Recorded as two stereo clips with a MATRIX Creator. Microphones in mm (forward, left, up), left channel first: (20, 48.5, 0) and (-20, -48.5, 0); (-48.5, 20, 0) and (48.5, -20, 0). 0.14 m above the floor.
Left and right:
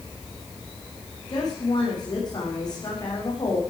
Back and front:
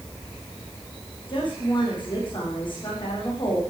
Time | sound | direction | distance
1.3 | a woman speaking | 115° left | 8 m